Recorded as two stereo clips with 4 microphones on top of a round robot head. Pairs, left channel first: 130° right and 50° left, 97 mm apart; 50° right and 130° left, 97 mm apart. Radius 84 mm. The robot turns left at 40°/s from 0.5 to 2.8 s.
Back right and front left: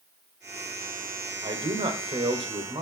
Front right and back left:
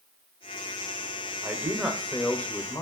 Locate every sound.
1.4 s a man speaking: 65° left, 2 m; by 2.8 s 10° left, 2 m